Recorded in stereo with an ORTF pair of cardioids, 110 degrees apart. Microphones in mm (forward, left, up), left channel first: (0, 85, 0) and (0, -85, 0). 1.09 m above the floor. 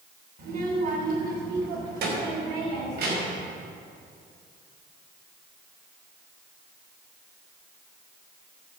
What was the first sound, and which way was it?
A child speaking, 60° right.